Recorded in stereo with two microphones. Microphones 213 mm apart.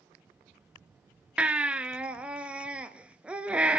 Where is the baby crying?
5° right (ahead or behind), 0.8 m.